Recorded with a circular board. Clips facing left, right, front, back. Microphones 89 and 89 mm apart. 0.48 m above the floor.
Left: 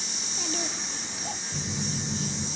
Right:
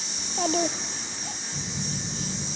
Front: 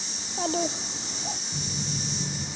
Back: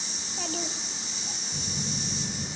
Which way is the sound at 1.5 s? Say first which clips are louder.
Left 1 dB, back 3 dB; 55° left.